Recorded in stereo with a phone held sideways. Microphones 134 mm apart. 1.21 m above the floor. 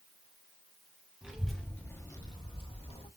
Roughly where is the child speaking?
Centre.